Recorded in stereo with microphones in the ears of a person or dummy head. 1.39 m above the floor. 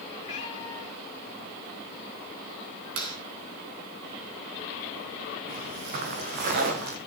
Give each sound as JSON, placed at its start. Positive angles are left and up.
{"t": 0.2, "sound": "a cat meowing", "side_deg": 40, "distance_m": 5.0}
{"t": 3.0, "sound": "a clap", "side_deg": -85, "distance_m": 8.5}
{"t": 5.5, "sound": "footsteps", "side_deg": -50, "distance_m": 4.5}